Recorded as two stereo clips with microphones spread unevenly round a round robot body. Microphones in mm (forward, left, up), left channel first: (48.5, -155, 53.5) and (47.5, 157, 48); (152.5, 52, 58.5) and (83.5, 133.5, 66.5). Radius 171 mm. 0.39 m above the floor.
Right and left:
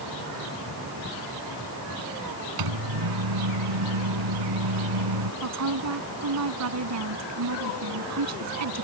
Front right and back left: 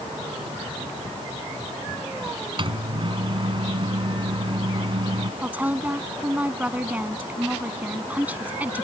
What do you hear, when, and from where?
2.6 s a microwave: 90° left
5.4 s a woman speaking: 55° left